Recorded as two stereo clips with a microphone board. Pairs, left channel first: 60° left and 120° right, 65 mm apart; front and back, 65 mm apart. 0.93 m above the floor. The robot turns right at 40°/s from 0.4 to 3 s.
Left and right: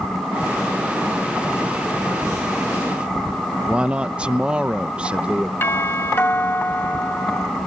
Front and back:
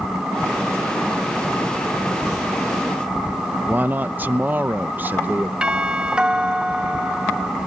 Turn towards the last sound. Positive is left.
turn(degrees=110)